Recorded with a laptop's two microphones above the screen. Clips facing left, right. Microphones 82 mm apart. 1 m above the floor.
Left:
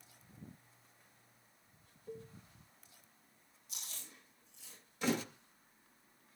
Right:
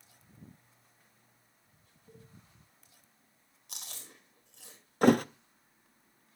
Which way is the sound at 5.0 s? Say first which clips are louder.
Right 12 dB; 55° right (ahead or behind).